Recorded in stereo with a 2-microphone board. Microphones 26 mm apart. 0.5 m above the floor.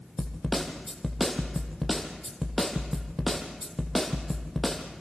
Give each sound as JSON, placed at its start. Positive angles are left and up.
{"t": 0.2, "sound": "a snare drum", "side_deg": 5, "distance_m": 3.0}